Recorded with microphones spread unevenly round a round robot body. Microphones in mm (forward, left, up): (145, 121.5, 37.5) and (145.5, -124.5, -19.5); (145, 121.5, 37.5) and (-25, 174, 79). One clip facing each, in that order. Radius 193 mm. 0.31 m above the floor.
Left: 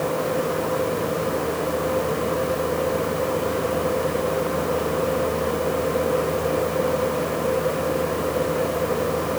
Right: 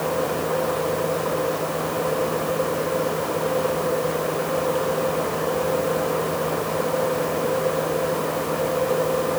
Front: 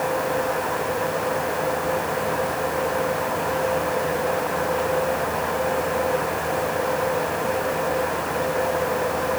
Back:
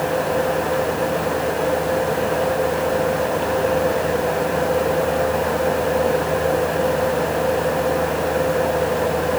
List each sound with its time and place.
Only background noise.